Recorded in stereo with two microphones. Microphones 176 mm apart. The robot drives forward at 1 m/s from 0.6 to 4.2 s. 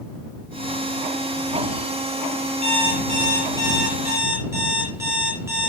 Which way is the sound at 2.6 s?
35° right (ahead or behind).